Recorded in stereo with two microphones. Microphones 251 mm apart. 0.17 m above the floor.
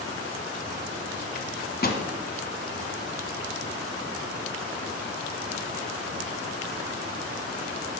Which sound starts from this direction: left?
A microwave, at 1.4 s.